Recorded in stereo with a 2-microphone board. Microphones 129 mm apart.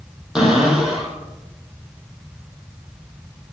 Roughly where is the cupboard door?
Centre.